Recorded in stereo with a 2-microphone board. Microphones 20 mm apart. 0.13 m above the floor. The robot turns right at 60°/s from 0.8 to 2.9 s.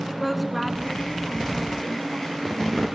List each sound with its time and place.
0.1 s a woman speaking: centre (ahead or behind), 1.1 m; by 3.0 s 20° right (ahead or behind), 1.1 m